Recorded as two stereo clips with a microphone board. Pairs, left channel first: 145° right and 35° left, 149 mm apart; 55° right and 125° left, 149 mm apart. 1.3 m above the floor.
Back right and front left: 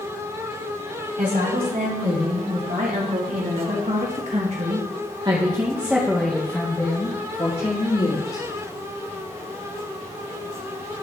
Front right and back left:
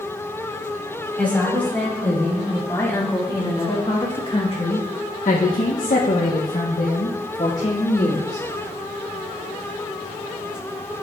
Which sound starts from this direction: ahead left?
A woman speaking, at 1.2 s.